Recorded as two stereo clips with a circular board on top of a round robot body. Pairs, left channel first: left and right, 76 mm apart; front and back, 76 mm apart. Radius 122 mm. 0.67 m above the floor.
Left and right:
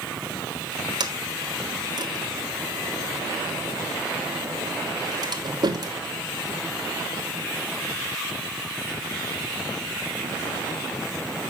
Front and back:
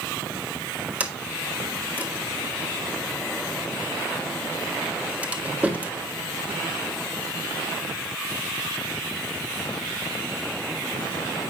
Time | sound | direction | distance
1.0 | a sliding door | 110° right | 1.9 m